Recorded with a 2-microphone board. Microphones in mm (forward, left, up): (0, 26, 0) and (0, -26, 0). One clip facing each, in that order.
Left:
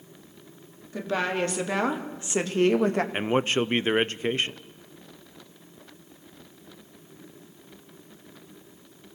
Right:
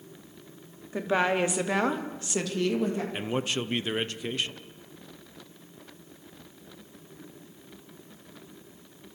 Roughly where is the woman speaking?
Right.